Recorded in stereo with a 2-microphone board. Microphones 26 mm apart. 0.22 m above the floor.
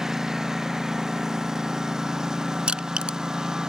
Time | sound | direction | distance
0.0 | a lawn mower | 15° right (ahead or behind) | ?
2.7 | crushing | 40° right (ahead or behind) | ?